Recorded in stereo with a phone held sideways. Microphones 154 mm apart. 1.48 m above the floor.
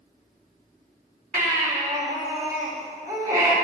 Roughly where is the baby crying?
Right.